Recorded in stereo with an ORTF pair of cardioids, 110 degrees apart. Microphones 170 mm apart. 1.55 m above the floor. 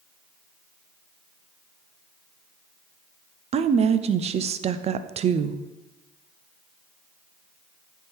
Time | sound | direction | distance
3.5 | a woman speaking | 40° right | 0.5 m